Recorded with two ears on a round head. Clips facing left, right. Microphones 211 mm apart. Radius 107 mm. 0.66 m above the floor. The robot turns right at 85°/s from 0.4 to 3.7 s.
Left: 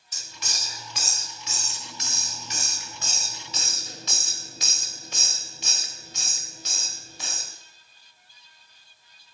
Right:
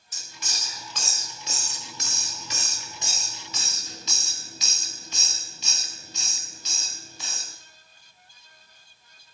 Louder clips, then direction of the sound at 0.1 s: Left 1 dB; 60° left (ahead or behind).